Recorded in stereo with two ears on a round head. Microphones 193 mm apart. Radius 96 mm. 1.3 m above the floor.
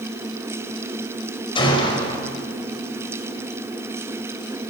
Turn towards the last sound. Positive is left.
turn(degrees=25)  # may be behind; listen again after turning